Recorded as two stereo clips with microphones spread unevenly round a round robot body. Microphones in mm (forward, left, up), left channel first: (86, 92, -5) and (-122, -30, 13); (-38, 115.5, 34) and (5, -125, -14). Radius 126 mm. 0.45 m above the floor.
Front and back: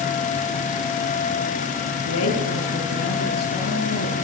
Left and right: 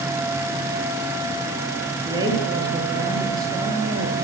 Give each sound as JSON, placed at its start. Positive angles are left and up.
{"t": 2.0, "sound": "a woman speaking", "azimuth_deg": -5, "distance_m": 9.5}